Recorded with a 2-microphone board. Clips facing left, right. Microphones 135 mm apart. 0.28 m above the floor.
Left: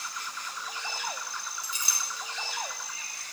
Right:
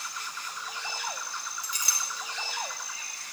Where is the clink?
25° left (ahead or behind), 2.5 m.